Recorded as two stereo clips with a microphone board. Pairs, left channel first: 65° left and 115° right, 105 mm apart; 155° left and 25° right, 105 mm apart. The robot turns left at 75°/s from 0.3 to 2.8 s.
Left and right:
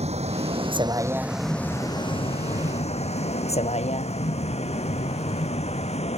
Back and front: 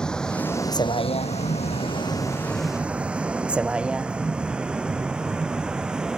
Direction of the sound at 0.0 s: 120° right.